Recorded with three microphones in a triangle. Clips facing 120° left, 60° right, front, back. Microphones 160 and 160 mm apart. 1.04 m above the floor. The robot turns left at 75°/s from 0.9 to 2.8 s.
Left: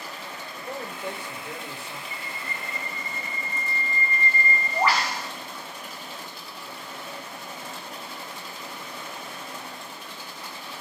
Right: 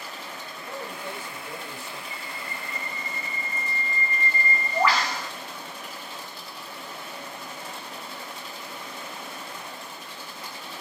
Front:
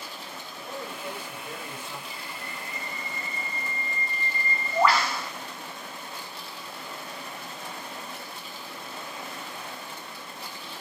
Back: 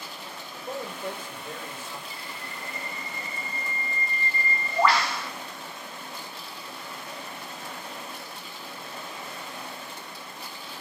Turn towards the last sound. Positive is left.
turn(degrees=85)